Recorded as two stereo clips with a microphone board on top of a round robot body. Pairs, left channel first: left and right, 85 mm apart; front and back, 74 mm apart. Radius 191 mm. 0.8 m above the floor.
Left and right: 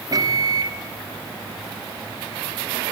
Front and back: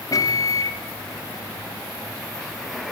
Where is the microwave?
45° right, 1.9 m.